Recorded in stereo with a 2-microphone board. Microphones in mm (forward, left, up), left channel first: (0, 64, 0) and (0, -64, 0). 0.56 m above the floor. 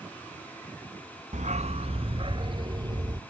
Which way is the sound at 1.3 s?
75° right (ahead or behind).